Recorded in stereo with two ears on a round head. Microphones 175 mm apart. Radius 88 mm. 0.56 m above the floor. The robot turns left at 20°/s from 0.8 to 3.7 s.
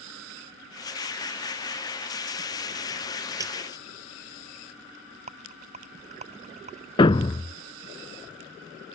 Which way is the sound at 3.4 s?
15° right (ahead or behind).